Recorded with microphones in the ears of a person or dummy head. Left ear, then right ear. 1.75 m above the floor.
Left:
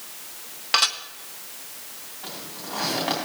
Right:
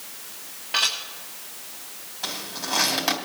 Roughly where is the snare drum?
I don't hear a snare drum.